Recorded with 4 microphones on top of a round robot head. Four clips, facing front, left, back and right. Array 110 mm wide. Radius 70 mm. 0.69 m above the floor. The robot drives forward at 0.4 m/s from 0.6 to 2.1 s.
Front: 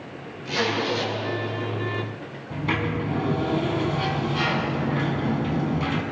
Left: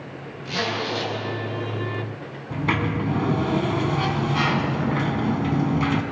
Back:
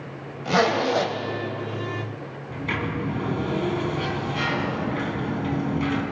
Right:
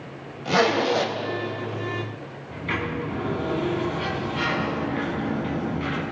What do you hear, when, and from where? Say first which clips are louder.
0.5 s a zipper: right 7 dB, back 5 dB; 145° right, 2 m
2.5 s a sliding door: left 4 dB, front 2 dB; 85° left, 2.5 m